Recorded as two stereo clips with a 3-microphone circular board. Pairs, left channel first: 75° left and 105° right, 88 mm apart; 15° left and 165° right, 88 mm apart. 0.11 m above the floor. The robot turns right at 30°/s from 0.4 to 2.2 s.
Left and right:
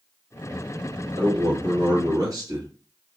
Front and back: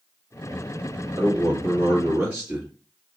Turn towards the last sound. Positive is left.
turn(degrees=-95)